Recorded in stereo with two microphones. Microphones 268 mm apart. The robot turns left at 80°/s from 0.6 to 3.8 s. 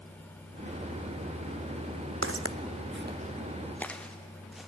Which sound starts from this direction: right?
Footsteps, at 2.2 s.